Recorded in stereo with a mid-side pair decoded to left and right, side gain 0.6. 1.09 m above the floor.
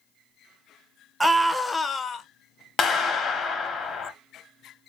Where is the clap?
45° left, 0.6 m.